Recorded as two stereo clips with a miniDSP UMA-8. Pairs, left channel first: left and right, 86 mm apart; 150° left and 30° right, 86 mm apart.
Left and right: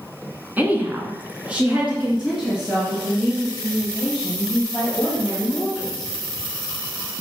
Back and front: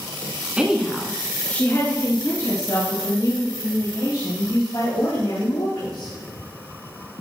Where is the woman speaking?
80° right, 1.4 m; by 6.1 s straight behind, 5.5 m.